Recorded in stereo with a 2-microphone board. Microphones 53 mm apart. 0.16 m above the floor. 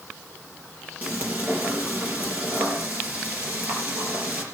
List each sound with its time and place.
1.0 s frying: 30° right (ahead or behind), 4.5 m